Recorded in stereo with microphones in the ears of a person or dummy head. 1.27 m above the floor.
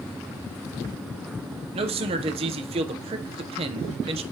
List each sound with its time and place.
1.7 s a man speaking: 30° right (ahead or behind), 0.6 m